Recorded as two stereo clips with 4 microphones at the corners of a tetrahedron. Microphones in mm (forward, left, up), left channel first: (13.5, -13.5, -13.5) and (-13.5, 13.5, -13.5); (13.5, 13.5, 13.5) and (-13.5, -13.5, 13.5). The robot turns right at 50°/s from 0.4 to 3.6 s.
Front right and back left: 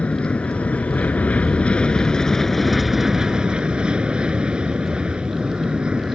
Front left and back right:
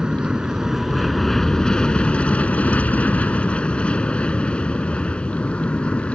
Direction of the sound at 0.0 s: 75° right.